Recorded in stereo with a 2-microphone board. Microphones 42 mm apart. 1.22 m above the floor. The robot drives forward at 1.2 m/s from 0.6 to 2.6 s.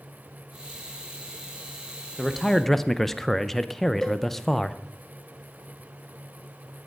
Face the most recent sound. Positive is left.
turn(degrees=10)  # may be behind; listen again after turning